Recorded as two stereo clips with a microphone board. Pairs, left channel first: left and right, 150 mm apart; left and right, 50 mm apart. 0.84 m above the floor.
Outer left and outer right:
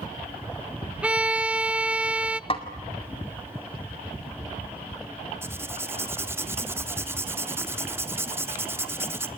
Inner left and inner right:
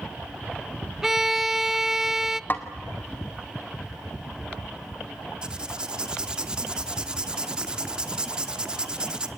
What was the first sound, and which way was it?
A violin, 10° right (ahead or behind).